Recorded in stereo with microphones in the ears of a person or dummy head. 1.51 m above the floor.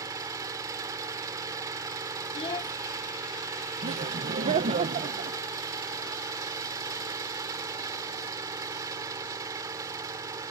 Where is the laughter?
35° right (ahead or behind).